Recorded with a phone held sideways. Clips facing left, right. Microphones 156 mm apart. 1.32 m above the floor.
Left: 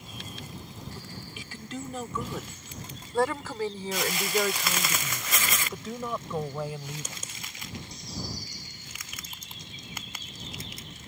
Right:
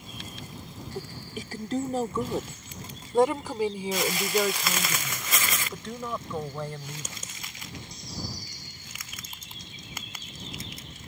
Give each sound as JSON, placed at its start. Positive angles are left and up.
{"t": 0.9, "sound": "a woman speaking", "side_deg": -50}